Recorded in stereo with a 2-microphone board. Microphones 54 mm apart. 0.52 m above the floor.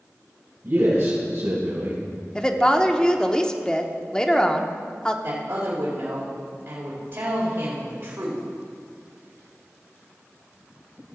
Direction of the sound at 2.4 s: 15° left (ahead or behind).